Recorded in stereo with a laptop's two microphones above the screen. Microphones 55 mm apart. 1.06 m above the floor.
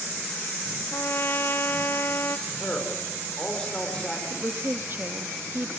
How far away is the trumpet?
About 1.8 m.